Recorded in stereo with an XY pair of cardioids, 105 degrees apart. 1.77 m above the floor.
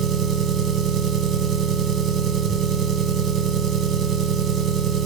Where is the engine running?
70° right, 1.0 m.